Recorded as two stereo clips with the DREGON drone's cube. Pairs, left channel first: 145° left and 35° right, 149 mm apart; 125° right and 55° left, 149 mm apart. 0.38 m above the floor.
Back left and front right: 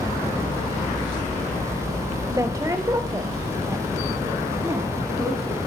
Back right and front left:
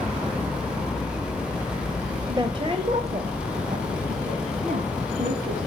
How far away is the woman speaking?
About 1.0 m.